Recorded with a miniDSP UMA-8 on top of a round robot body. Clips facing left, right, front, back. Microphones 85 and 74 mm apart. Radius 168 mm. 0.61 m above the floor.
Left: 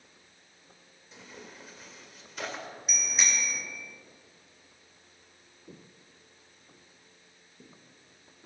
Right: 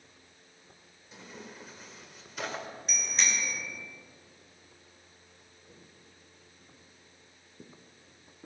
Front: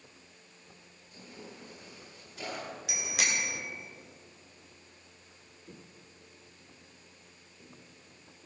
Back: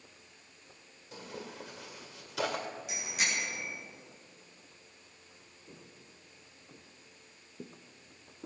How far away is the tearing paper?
About 2.0 m.